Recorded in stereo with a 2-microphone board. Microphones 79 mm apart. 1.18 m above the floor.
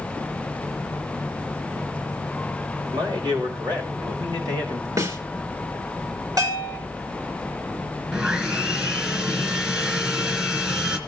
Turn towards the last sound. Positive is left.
turn(degrees=-15)  # may be behind; listen again after turning